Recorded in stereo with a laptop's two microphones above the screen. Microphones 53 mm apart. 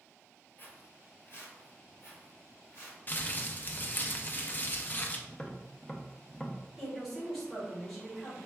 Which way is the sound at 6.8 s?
10° left (ahead or behind).